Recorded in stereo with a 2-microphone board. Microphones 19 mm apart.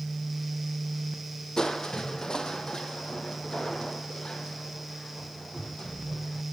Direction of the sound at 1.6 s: 40° left (ahead or behind).